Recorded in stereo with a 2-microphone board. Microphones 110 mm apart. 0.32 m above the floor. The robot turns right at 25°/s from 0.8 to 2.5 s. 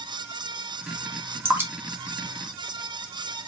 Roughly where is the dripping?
Right.